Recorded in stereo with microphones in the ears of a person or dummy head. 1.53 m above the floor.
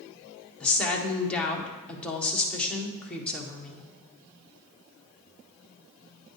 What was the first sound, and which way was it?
A woman speaking, 10° left (ahead or behind).